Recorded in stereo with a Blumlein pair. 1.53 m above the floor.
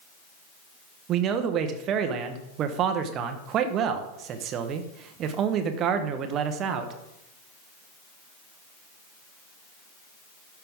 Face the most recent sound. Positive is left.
turn(degrees=-30)